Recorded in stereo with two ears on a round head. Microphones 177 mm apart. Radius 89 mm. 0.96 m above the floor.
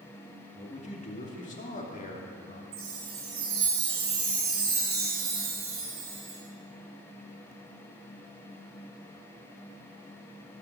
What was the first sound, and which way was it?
A man speaking, 35° left (ahead or behind).